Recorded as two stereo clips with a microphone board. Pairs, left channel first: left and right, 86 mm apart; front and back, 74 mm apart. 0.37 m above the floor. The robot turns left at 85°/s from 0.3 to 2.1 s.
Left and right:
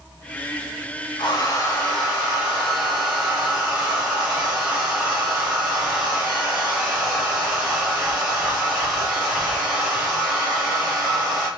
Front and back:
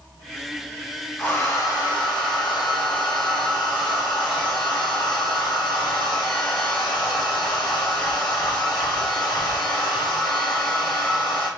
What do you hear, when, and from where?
1.2 s a hair dryer: 75° left, 2 m; by 11.5 s 5° right, 2 m